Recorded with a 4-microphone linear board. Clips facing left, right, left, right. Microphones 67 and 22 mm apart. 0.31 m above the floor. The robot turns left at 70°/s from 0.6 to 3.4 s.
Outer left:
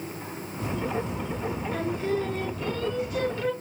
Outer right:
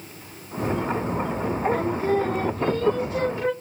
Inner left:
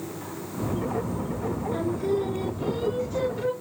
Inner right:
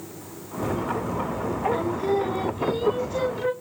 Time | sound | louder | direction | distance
1.7 | singing | outer right 3 dB, even | 35° right | 1.1 m